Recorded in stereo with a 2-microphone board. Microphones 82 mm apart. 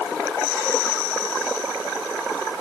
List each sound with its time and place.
Only background noise.